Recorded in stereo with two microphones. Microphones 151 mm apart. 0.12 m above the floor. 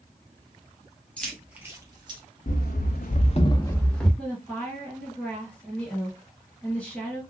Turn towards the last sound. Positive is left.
turn(degrees=5)  # may be behind; listen again after turning